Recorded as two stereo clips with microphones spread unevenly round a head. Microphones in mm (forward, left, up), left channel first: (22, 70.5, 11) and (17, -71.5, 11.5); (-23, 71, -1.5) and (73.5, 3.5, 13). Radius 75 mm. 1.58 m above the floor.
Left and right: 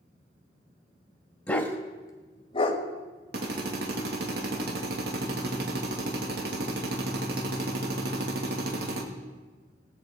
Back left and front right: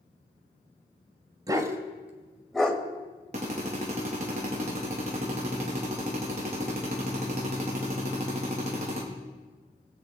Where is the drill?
80° right, 2 m.